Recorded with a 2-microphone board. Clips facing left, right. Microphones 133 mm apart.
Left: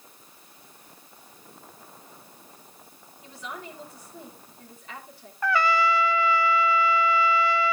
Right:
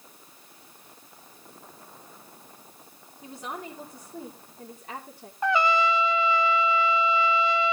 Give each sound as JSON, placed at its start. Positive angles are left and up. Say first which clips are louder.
{"t": 3.2, "sound": "a woman speaking", "louder": "right 2 dB", "side_deg": -40, "distance_m": 3.5}
{"t": 5.4, "sound": "a trumpet", "louder": "even", "side_deg": -20, "distance_m": 0.5}